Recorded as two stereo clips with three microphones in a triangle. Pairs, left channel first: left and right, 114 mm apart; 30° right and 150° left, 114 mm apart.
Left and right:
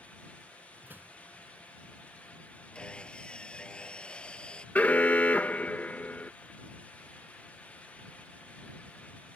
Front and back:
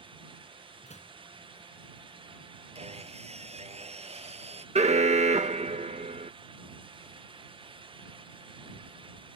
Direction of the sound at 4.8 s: 165° left.